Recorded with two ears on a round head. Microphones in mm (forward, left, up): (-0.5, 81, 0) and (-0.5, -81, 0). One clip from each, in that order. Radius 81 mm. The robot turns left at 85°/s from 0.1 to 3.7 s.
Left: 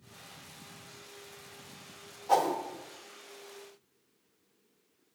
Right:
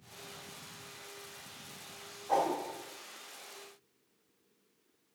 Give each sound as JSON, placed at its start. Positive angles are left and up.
{"t": 2.3, "sound": "a whoosh", "side_deg": 75, "distance_m": 1.1}